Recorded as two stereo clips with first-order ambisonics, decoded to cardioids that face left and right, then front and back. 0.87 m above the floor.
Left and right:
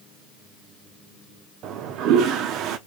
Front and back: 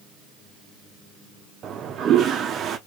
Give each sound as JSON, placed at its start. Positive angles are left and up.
{"t": 1.6, "sound": "a toilet flushing", "azimuth_deg": -125, "distance_m": 0.5}